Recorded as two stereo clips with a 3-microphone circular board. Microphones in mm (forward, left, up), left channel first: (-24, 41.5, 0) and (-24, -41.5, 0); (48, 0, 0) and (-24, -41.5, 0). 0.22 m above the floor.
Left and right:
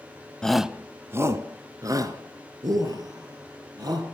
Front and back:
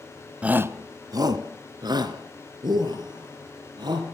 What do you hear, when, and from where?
0.4 s a shout: 155° left, 1.0 m; by 4.1 s 125° right, 6 m